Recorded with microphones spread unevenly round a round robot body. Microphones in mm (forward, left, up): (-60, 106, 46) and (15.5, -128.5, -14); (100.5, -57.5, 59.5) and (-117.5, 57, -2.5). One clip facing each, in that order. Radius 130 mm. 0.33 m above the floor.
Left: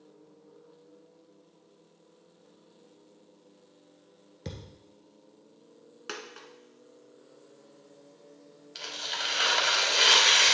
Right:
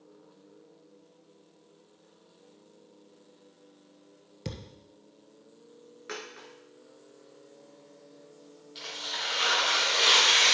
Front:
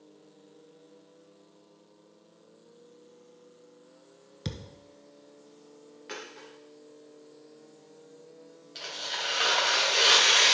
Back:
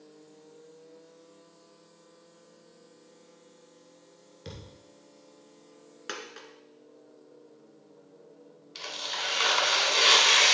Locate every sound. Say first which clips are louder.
4.5 s a thud: right 2 dB, front 5 dB; 10° left, 1.2 m
6.1 s a dropped coin: right 1 dB, back 1 dB; 150° left, 1.8 m
8.8 s tearing paper: even, even; 85° left, 2.5 m